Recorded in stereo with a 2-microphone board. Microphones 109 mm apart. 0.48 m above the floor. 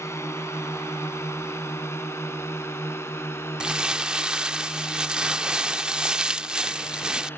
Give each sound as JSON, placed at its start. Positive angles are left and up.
{"t": 0.0, "sound": "a drone", "side_deg": 25}
{"t": 3.6, "sound": "crumpling", "side_deg": -5}